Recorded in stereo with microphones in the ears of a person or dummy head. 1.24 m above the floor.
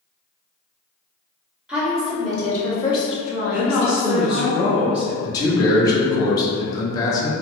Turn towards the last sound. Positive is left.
turn(degrees=25)  # may be behind; listen again after turning